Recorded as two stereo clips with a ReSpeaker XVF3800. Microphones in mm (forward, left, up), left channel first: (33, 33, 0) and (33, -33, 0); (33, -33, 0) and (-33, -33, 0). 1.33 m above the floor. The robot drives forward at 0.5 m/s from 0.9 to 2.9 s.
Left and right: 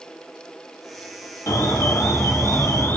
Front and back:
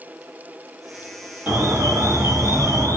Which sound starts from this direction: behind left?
An alarm, at 1.5 s.